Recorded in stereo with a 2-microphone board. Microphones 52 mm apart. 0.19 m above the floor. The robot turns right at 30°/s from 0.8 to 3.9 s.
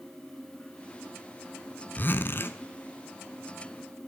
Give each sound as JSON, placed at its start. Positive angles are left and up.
{"t": 2.0, "sound": "a zipper", "side_deg": 40, "distance_m": 0.8}